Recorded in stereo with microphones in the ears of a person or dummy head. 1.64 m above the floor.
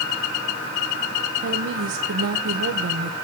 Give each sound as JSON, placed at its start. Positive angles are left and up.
{"t": 1.4, "sound": "a woman speaking", "side_deg": -60, "distance_m": 1.1}